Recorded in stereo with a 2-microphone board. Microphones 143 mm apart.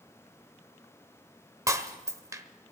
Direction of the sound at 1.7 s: 25° right (ahead or behind).